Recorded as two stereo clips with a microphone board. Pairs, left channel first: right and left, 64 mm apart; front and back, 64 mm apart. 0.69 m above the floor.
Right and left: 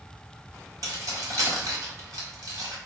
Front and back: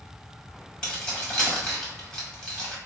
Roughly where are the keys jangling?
Left.